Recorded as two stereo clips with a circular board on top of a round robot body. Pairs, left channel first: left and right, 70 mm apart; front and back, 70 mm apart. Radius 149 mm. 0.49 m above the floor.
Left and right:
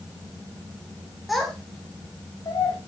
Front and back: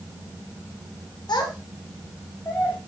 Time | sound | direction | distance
1.3 | a child speaking | straight ahead | 1.5 m